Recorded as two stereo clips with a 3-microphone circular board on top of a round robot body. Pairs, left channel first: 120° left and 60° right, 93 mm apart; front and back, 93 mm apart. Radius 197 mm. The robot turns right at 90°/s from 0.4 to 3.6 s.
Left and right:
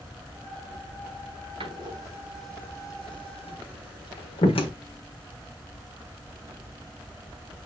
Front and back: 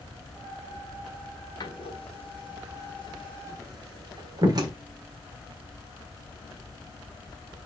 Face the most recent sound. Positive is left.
turn(degrees=135)